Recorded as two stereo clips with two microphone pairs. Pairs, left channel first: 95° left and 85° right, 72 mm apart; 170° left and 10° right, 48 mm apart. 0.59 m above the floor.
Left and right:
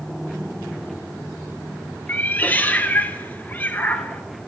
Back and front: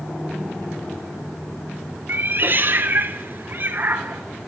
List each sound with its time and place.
2.1 s a cat meowing: 30° left, 1.1 m